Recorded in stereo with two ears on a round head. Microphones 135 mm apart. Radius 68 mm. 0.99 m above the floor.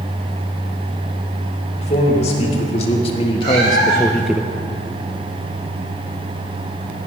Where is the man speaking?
45° left (ahead or behind), 3.5 m; by 4.4 s 15° right (ahead or behind), 0.6 m.